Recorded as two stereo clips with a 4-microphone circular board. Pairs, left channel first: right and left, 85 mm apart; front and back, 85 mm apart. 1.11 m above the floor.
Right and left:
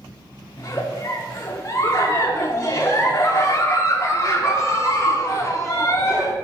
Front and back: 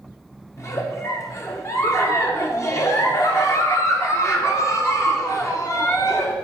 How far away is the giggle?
About 1.1 m.